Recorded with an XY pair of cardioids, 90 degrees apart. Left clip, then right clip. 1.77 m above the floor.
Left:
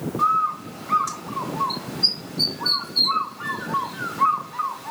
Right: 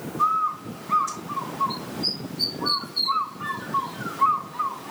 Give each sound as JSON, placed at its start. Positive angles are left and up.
{"t": 0.2, "sound": "a bird", "azimuth_deg": 70, "distance_m": 4.5}